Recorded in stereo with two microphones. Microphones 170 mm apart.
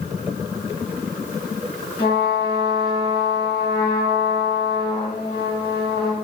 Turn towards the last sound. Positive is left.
turn(degrees=70)  # may be behind; listen again after turning